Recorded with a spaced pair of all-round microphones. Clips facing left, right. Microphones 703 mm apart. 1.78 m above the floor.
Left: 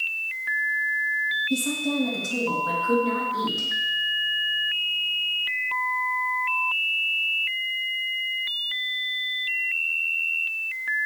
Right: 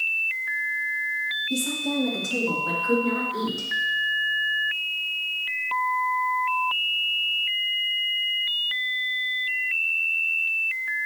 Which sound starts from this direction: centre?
A woman speaking, at 1.5 s.